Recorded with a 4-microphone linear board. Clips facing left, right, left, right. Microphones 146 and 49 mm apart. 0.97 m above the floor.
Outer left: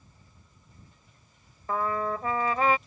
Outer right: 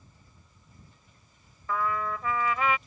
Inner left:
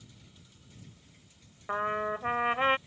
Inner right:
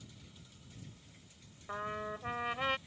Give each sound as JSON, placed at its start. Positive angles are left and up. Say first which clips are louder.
{"t": 1.7, "sound": "a trumpet", "louder": "outer left 2 dB, inner left 9 dB", "side_deg": 35}